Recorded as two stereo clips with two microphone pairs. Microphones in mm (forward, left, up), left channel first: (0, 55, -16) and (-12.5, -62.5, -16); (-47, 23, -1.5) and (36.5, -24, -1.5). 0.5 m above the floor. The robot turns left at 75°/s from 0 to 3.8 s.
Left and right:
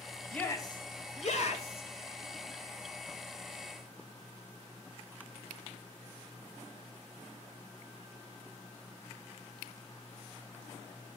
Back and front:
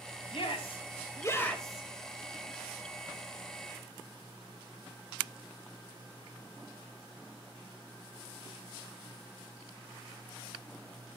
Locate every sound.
0.3 s a shout: 165° left, 2.5 m; by 1.9 s 50° left, 2.5 m